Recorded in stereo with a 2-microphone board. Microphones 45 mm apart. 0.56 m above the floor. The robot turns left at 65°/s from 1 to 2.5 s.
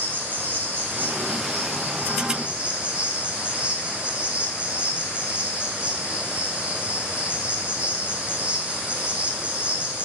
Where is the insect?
55° right, 0.8 m; by 10.1 s 150° right, 0.8 m.